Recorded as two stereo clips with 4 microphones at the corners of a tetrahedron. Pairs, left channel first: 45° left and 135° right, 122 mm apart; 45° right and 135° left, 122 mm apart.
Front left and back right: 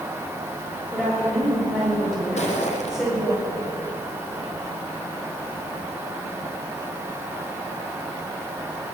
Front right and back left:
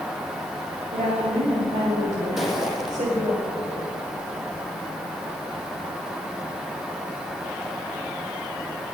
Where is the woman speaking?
130° left, 7 m; by 3.4 s 140° left, 7.5 m.